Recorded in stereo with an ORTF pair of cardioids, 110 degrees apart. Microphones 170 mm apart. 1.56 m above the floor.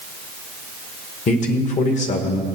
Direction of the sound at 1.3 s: 45° left.